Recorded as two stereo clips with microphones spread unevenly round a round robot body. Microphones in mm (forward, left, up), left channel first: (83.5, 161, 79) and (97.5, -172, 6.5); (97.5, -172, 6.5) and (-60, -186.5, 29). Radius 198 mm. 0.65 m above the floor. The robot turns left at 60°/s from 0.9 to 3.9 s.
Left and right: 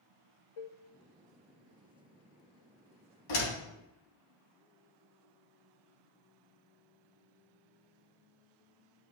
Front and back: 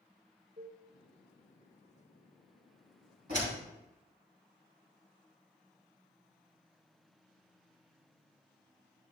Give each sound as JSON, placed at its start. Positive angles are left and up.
{"t": 0.6, "sound": "dishes clattering", "azimuth_deg": 120, "distance_m": 0.7}
{"t": 3.3, "sound": "a door slam", "azimuth_deg": 120, "distance_m": 3.5}